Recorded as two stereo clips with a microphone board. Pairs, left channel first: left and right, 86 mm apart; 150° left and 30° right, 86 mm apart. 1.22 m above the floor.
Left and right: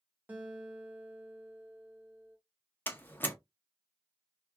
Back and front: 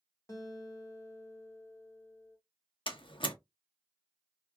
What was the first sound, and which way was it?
A guitar, 160° right.